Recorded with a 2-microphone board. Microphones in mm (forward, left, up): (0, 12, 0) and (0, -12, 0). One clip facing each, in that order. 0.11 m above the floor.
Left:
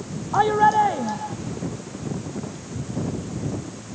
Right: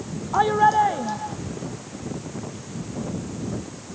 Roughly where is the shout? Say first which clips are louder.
Left 1 dB; centre.